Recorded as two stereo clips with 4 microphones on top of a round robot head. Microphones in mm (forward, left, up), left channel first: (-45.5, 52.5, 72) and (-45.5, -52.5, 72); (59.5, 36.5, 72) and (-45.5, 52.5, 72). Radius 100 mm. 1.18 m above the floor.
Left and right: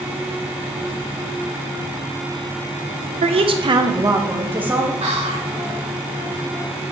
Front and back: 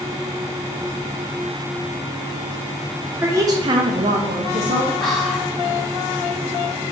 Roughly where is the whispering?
Right.